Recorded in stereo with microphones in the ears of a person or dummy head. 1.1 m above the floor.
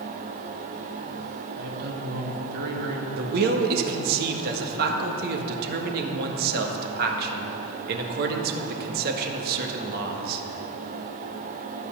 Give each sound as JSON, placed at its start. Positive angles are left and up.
{"t": 1.6, "sound": "a man speaking", "side_deg": -60, "distance_m": 2.0}
{"t": 3.2, "sound": "a man speaking", "side_deg": -55, "distance_m": 1.5}